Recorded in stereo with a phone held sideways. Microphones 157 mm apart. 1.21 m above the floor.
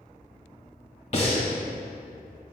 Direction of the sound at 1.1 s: 45° left (ahead or behind).